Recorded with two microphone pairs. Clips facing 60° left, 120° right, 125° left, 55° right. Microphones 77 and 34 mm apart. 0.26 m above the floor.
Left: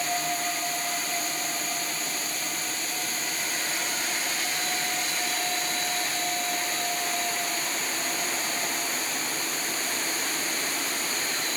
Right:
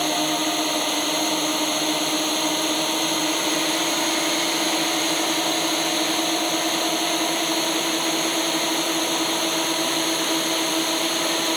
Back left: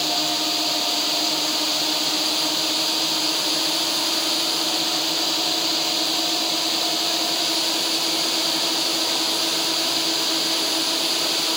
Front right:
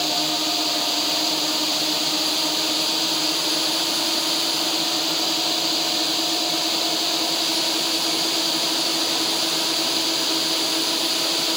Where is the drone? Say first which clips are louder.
Right 6 dB, even; 145° right.